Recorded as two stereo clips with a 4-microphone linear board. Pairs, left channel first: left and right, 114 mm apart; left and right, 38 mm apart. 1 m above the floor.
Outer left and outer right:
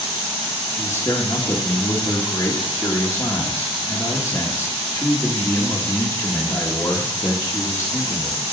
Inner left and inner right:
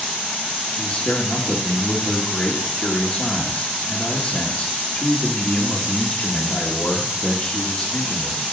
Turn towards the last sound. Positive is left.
turn(degrees=30)  # may be behind; listen again after turning